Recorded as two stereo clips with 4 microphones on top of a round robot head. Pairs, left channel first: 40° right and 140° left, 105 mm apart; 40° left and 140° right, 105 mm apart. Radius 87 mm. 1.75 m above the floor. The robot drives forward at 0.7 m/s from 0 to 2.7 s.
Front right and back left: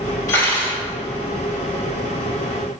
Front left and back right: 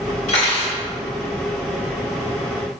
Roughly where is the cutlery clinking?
Ahead.